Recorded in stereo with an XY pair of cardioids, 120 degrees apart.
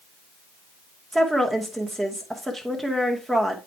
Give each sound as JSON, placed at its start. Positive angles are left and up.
{"t": 1.1, "sound": "a woman speaking", "azimuth_deg": -15, "distance_m": 2.5}